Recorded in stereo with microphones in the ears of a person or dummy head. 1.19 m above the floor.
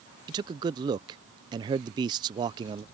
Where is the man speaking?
25° right (ahead or behind).